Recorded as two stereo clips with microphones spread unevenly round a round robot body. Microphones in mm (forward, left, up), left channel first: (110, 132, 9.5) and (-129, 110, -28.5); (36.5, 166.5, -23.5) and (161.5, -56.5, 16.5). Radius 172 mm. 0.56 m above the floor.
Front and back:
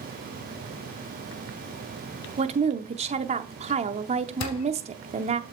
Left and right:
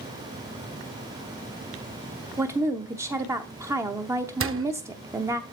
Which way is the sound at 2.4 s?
150° right.